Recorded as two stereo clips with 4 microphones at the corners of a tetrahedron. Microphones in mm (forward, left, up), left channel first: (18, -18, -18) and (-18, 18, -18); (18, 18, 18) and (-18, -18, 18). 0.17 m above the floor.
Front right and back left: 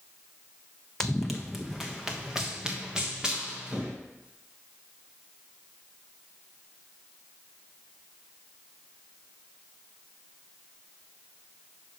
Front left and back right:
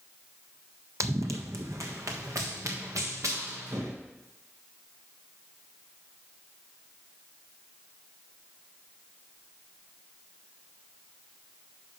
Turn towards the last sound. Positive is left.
turn(degrees=-150)